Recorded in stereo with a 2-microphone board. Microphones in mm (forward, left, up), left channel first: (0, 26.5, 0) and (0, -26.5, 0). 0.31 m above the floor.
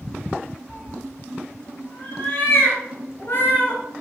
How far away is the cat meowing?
About 2 m.